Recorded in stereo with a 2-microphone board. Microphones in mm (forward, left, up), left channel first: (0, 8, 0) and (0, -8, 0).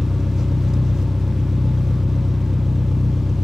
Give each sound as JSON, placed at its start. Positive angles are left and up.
{"t": 0.0, "sound": "an engine running", "side_deg": -40, "distance_m": 1.7}